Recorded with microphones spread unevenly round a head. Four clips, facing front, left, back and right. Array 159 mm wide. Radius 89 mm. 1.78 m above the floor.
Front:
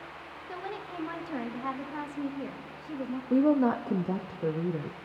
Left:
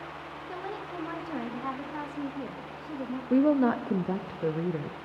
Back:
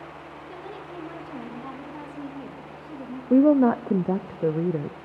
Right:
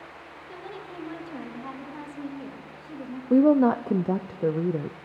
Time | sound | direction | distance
0.5 | a woman speaking | 30° left | 3 m
3.3 | a woman speaking | 155° right | 0.5 m